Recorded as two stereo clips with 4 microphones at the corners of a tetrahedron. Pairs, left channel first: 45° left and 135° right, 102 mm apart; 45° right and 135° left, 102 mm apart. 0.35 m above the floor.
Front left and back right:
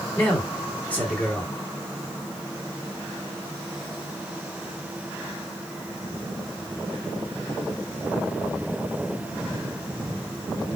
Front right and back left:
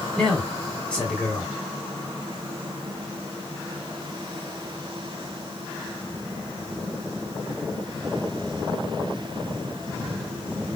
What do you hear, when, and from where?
0.2 s a man speaking: 10° left, 1.5 m